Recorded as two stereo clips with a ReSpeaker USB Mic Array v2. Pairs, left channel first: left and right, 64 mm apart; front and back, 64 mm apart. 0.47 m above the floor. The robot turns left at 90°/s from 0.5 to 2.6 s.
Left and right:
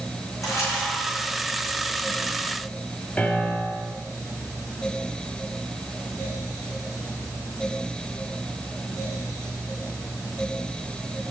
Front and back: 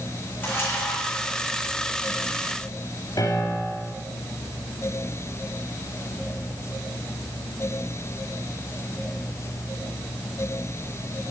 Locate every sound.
0.4 s a camera shutter: 55° left, 8 m; by 1.2 s 10° right, 8 m
3.2 s a piano: 15° left, 3.5 m